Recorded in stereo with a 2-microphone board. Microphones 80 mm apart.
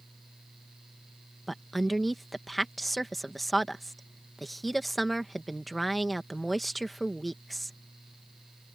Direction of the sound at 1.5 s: Centre (ahead or behind).